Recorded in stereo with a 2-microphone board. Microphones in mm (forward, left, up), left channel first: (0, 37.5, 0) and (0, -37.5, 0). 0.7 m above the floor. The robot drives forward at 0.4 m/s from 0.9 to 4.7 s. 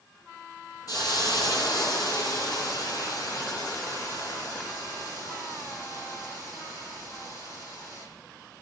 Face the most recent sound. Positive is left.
turn(degrees=40)  # may be behind; listen again after turning